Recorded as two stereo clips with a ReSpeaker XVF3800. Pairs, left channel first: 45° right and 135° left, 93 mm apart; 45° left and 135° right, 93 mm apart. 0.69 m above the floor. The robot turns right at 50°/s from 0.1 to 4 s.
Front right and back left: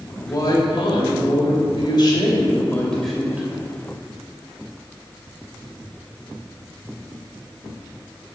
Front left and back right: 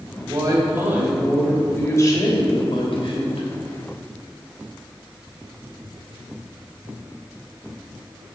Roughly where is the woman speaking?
Right.